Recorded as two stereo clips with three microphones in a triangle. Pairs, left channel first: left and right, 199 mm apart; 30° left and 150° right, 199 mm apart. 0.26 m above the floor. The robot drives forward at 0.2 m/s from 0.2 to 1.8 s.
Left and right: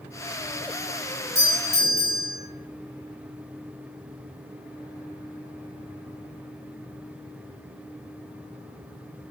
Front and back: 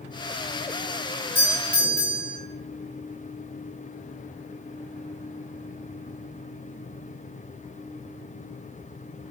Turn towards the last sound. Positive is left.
turn(degrees=105)